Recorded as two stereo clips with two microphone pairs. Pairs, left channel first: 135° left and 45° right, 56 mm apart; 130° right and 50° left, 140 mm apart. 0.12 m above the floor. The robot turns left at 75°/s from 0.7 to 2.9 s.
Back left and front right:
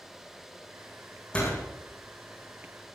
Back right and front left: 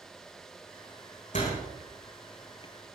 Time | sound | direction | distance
1.3 | a door slam | 155° right | 7.5 m